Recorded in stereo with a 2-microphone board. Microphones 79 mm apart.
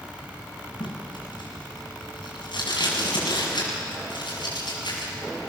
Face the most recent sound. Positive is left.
turn(degrees=75)  # may be behind; listen again after turning